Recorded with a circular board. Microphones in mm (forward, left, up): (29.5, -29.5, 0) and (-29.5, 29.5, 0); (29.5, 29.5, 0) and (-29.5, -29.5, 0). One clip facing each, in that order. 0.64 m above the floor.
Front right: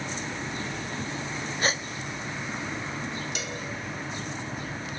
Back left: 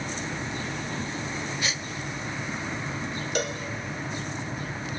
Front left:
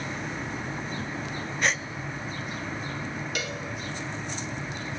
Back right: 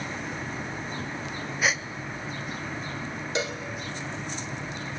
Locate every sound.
1.6 s a gasp: 50° right, 0.6 m
3.4 s a cowbell: 165° left, 1.6 m